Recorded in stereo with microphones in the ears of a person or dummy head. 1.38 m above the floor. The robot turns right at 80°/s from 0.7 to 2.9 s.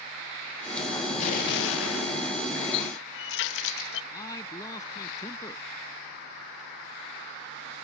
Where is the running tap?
55° left (ahead or behind); by 4.0 s 65° left (ahead or behind).